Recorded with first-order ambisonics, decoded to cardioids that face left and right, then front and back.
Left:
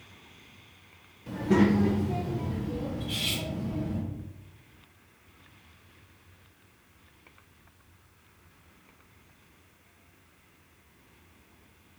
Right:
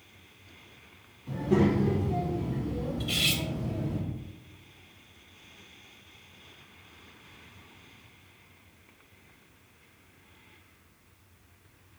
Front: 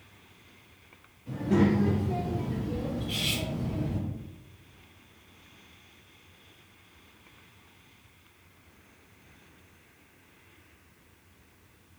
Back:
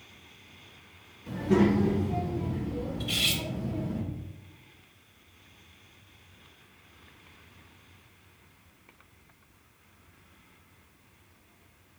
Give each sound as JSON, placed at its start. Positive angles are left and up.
{"t": 1.3, "sound": "a child speaking", "azimuth_deg": 120, "distance_m": 0.9}
{"t": 3.0, "sound": "cutlery clinking", "azimuth_deg": -140, "distance_m": 0.7}